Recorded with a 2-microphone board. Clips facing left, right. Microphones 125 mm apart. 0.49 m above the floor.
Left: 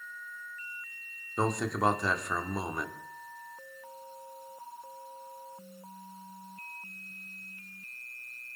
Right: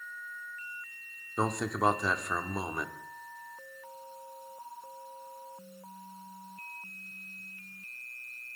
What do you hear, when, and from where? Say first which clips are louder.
1.4 s a man speaking: left 1 dB; 5° right (ahead or behind), 1.2 m